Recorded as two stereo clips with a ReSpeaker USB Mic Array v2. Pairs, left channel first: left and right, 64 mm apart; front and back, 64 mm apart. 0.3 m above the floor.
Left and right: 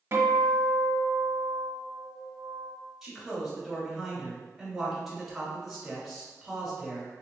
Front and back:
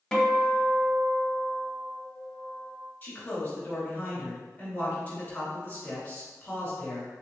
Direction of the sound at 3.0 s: 10° right.